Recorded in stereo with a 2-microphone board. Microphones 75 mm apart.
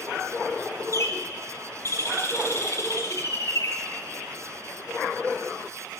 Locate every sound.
0.9 s a bird: 40° left (ahead or behind), 1.3 m